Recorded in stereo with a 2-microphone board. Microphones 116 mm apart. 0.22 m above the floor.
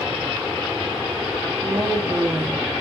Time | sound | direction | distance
1.6 | a woman speaking | 20° right (ahead or behind) | 2.5 m